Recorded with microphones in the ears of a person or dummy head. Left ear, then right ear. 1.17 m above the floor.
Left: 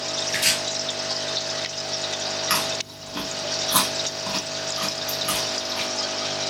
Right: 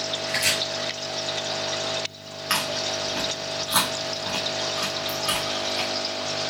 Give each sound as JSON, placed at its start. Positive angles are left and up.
{"t": 0.3, "sound": "chopping", "side_deg": 15, "distance_m": 3.0}
{"t": 2.5, "sound": "chewing", "side_deg": 10, "distance_m": 1.3}